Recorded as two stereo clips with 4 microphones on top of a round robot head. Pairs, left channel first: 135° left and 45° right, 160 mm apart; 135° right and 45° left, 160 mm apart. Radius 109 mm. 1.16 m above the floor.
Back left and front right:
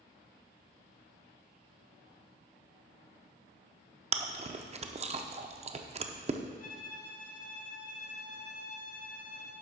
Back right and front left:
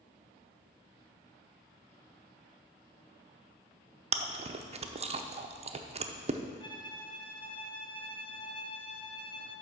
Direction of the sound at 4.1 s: Straight ahead.